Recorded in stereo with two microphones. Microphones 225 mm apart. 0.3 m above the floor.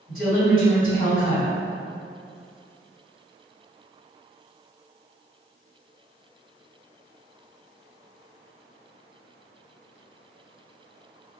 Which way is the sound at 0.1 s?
45° left (ahead or behind).